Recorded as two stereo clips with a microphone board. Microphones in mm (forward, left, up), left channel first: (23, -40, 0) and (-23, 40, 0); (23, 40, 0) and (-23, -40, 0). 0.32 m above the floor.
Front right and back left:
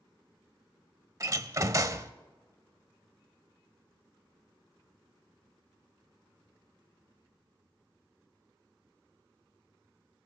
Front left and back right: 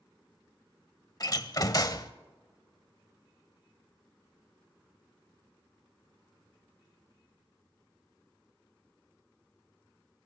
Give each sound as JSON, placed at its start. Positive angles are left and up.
{"t": 1.2, "sound": "a door slam", "azimuth_deg": 85, "distance_m": 0.7}